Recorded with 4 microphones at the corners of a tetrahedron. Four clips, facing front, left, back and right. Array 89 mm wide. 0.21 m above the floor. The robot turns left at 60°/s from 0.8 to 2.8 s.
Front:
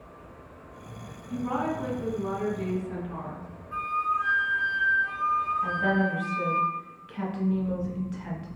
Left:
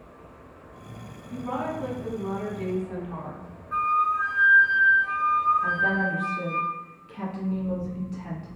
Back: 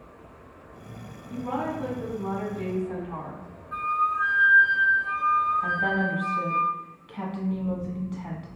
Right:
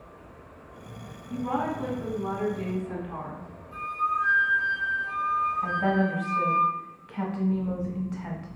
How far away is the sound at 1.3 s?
About 1.8 m.